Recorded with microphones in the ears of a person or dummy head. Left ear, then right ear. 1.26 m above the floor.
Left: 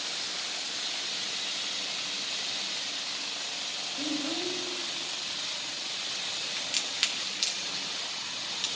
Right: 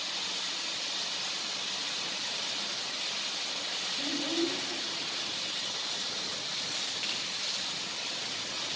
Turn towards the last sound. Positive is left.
turn(degrees=60)  # may be behind; listen again after turning